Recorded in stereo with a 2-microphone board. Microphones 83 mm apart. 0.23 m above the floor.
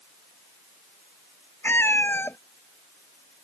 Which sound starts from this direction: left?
A cat meowing, at 1.6 s.